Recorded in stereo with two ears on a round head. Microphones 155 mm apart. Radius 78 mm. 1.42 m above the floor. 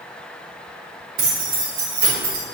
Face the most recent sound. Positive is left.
turn(degrees=-60)  # may be behind; listen again after turning